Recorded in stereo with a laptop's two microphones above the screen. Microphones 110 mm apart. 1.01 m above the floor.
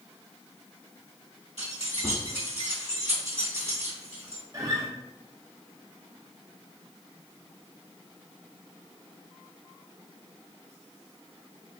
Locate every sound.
1.6 s keys jangling: 80° right, 1.7 m
4.5 s a guitar: 30° right (ahead or behind), 0.6 m